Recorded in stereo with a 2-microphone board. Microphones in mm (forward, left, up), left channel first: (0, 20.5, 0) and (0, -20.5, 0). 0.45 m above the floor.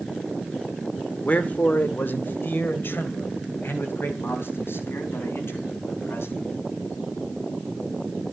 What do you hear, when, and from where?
1.2 s a man speaking: 40° left (ahead or behind), 1.0 m; by 6.4 s 80° left, 4 m